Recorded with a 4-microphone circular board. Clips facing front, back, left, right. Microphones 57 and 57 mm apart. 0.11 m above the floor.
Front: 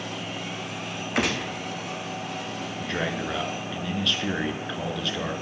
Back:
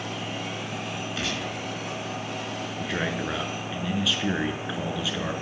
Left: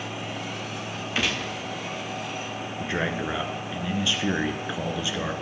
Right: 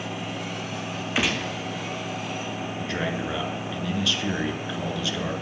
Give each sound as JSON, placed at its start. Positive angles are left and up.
{"t": 1.1, "sound": "a gunshot", "azimuth_deg": -15, "distance_m": 1.6}
{"t": 2.8, "sound": "a man speaking", "azimuth_deg": 105, "distance_m": 1.1}